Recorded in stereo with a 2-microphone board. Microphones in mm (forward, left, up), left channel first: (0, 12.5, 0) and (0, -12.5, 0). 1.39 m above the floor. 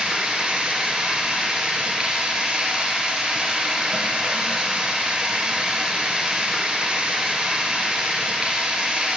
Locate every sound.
0.0 s running water: 40° right (ahead or behind), 2 m